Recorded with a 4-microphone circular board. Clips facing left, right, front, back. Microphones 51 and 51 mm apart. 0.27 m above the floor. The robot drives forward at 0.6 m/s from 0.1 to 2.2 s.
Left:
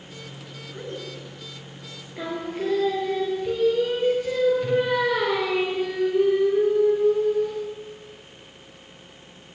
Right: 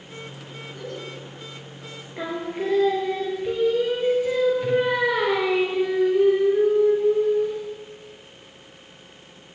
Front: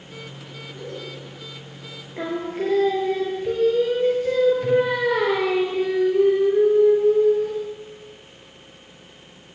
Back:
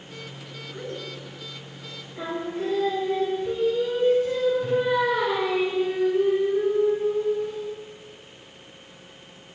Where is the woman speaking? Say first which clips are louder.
Even, even; 140° left, 3.5 m.